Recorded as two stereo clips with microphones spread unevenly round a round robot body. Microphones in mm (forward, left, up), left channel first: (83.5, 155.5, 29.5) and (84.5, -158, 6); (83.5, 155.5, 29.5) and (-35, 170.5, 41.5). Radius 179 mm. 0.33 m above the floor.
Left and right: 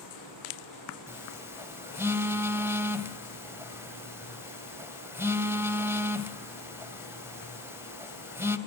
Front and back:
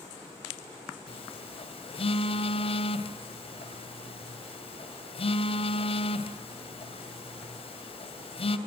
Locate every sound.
1.1 s a phone buzzing: 10° right, 2 m